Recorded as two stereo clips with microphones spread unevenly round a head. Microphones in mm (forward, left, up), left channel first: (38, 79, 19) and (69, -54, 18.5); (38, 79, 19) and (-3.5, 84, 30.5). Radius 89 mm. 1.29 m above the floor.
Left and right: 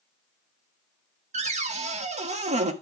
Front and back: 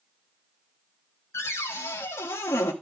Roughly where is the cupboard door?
Ahead right.